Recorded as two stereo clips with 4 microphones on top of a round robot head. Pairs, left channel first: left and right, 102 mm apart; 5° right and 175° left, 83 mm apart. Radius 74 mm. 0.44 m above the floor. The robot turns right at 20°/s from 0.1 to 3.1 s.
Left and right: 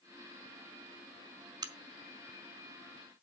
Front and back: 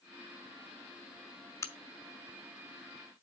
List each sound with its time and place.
1.6 s a crack: 55° right, 1.0 m; by 1.7 s 50° right, 1.0 m